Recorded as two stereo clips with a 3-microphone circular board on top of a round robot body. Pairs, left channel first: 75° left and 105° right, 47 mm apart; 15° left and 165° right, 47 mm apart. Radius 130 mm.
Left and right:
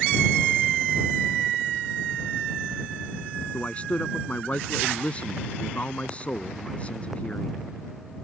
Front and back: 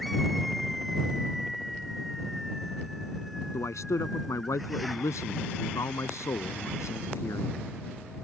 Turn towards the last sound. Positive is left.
turn(degrees=10)